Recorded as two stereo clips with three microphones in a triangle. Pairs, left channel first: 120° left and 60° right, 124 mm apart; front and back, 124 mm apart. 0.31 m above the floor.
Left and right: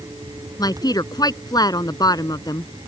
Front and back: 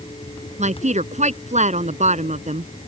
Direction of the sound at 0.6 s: 175° left.